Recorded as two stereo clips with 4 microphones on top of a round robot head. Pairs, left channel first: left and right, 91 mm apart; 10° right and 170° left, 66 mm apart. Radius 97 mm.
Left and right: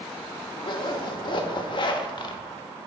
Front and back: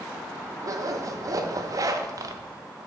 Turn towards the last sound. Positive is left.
turn(degrees=130)